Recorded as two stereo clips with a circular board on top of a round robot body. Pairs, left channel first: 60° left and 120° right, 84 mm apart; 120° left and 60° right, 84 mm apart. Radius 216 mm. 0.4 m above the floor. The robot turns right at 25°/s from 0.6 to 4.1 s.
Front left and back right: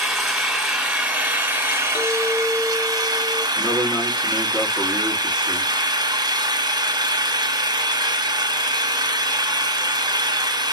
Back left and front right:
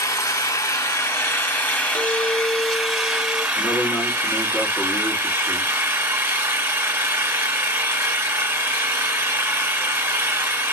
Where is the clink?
75° left, 0.8 m; by 3.5 s 115° left, 0.8 m.